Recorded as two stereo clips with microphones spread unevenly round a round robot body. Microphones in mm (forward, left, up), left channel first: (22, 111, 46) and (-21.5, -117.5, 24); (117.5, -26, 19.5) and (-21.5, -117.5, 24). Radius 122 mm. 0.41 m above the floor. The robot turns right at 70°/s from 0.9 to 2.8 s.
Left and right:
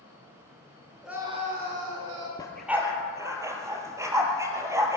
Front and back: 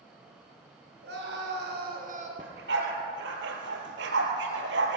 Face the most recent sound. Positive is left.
turn(degrees=180)